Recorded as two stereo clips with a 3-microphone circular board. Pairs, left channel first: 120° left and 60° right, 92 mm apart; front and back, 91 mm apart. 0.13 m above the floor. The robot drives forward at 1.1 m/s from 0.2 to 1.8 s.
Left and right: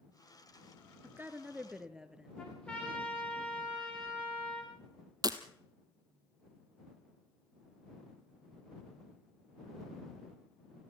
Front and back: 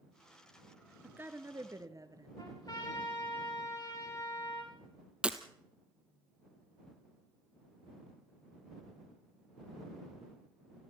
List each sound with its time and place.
1.0 s a woman speaking: 115° right, 1.6 m; by 2.3 s 140° right, 2.0 m
2.4 s a trumpet: 40° left, 7 m
5.2 s breaking glass: 100° right, 1.6 m